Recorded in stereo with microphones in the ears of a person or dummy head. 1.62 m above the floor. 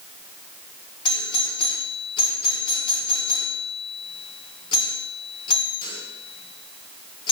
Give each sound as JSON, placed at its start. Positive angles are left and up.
{"t": 1.1, "sound": "a doorbell", "side_deg": 30, "distance_m": 5.0}